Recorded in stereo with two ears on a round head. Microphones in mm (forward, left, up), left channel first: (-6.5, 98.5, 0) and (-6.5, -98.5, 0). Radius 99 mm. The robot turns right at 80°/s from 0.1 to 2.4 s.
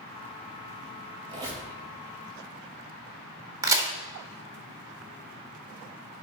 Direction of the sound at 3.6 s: 15° right (ahead or behind).